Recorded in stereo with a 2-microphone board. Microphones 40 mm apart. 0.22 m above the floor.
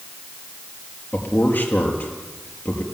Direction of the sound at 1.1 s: 55° left (ahead or behind).